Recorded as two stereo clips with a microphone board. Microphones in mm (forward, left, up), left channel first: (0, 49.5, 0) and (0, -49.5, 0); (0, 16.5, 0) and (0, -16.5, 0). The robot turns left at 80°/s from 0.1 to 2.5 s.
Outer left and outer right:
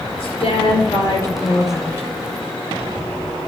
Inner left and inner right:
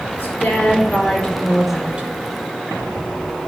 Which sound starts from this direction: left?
A woman speaking, at 0.2 s.